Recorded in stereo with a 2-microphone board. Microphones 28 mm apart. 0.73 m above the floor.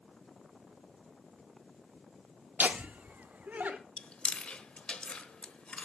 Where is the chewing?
40° left (ahead or behind), 0.9 m.